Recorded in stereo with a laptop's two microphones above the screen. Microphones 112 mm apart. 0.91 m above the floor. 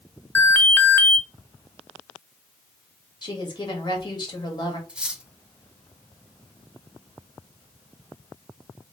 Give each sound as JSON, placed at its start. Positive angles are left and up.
{"t": 0.3, "sound": "an alarm", "side_deg": 20, "distance_m": 0.6}
{"t": 3.2, "sound": "a woman speaking", "side_deg": 40, "distance_m": 1.6}
{"t": 4.9, "sound": "cutlery clinking", "side_deg": -10, "distance_m": 0.8}